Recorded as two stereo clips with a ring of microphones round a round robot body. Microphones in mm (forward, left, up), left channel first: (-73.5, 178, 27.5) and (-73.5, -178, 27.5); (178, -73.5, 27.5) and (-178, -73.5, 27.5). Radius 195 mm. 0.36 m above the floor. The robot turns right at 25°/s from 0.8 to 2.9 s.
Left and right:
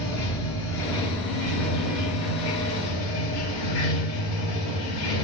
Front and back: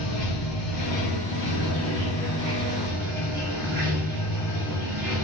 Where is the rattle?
No rattle in this recording.